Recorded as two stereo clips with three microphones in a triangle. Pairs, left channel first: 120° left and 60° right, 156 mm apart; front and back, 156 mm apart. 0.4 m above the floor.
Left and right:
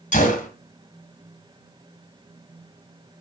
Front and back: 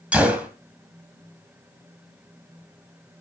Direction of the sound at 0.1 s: 100° left.